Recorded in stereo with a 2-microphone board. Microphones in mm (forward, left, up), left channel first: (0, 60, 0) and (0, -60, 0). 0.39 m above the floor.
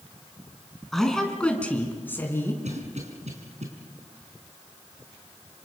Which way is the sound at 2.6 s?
70° right (ahead or behind).